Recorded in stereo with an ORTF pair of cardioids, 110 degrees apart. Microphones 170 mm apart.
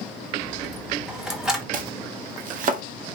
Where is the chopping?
55° right, 0.7 m.